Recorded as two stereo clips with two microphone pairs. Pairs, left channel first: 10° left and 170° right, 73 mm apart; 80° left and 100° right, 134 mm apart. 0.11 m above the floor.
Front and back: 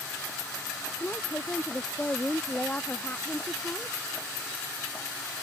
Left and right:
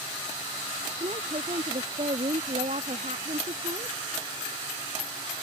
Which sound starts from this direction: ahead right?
A woman speaking, at 1.0 s.